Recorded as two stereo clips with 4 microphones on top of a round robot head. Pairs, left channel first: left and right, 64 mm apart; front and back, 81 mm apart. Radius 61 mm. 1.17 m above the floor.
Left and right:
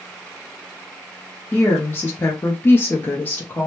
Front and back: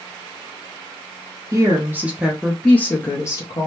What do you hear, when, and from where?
1.5 s a woman speaking: 145° left, 0.8 m; by 3.7 s 30° left, 0.9 m